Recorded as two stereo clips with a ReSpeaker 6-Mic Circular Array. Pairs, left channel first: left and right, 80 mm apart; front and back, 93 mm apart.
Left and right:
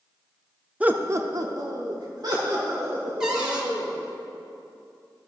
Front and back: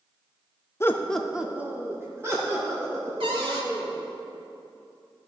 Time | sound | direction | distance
0.8 | laughter | 30° right | 0.6 m
3.2 | a cupboard door | 170° right | 1.5 m